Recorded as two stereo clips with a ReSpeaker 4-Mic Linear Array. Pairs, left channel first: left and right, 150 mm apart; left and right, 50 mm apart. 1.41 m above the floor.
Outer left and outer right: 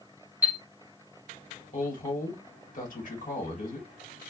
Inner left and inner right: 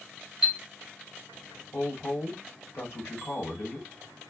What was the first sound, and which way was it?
A chime, 10° right (ahead or behind).